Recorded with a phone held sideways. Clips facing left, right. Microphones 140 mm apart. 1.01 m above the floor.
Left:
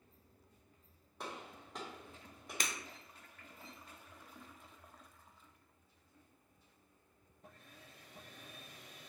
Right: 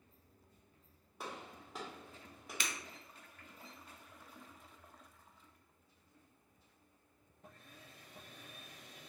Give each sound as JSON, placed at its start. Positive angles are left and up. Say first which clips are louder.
{"t": 1.2, "sound": "a gunshot", "louder": "even", "side_deg": 0, "distance_m": 1.0}
{"t": 2.6, "sound": "breaking glass", "louder": "left 1 dB", "side_deg": 40, "distance_m": 0.5}